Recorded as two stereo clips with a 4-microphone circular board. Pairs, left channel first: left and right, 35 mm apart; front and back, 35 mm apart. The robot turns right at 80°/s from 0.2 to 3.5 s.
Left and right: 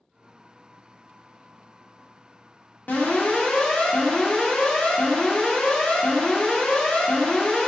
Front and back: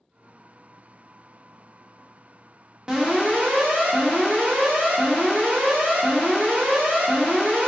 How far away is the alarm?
About 0.8 m.